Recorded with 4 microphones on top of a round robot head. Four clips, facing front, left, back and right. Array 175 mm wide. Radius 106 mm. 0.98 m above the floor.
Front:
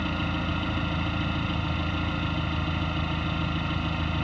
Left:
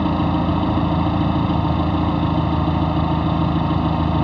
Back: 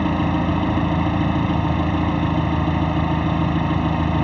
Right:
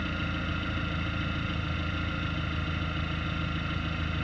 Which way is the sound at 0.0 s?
125° left.